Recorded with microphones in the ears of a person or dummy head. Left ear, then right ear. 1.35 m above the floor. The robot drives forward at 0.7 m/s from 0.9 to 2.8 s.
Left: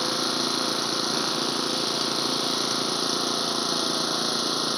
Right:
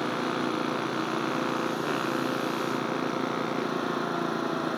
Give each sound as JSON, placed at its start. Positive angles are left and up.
{"t": 0.0, "sound": "an engine running", "side_deg": 70}